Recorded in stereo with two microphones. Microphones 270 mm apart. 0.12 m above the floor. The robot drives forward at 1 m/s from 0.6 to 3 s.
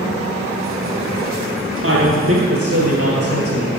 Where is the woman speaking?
50° right (ahead or behind), 2 m; by 3.7 s 40° right (ahead or behind), 2.5 m.